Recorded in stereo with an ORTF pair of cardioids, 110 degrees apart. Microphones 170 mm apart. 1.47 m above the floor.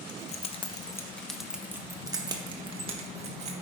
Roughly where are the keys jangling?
Ahead left.